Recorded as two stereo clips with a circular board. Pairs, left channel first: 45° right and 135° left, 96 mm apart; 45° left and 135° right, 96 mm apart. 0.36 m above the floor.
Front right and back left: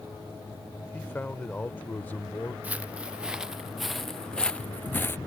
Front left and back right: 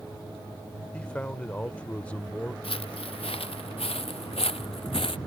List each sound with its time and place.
0.9 s a man speaking: 10° right
2.6 s footsteps: 60° left; by 5.2 s 20° left